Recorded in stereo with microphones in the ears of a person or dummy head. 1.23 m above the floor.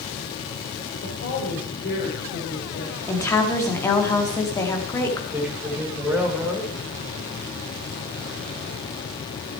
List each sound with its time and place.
1.0 s a woman speaking: 55° left (ahead or behind), 4.5 m; by 2.9 s 65° left (ahead or behind), 5 m
3.1 s a woman speaking: 15° left (ahead or behind), 2.5 m
5.3 s a man speaking: 5° right (ahead or behind), 4 m